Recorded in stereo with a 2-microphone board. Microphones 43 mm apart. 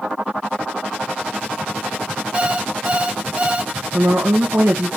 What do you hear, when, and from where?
2.3 s an alarm clock: 30° right (ahead or behind), 1.1 m
3.9 s a woman speaking: 70° right (ahead or behind), 1.7 m